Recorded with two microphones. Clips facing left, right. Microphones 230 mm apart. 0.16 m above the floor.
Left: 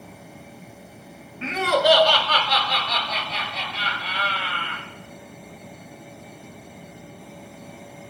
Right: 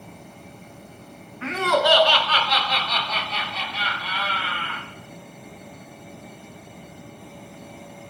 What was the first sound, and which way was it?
Laughter, 25° left (ahead or behind).